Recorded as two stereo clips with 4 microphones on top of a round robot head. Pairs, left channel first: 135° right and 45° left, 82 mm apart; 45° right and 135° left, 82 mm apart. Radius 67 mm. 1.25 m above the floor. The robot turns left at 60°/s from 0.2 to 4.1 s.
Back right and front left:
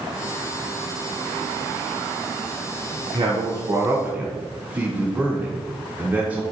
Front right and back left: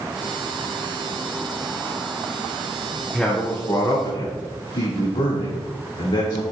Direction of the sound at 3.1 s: 35° left.